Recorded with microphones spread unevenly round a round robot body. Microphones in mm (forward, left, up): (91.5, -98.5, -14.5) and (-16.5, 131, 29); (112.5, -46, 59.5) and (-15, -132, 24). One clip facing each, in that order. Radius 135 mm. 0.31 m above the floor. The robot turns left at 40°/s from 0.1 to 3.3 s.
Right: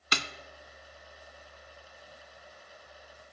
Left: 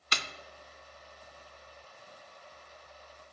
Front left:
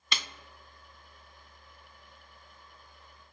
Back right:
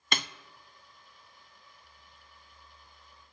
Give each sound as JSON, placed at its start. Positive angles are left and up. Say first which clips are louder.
{"t": 0.1, "sound": "a snare drum", "louder": "right 5 dB, back right 5 dB", "azimuth_deg": -100, "distance_m": 0.6}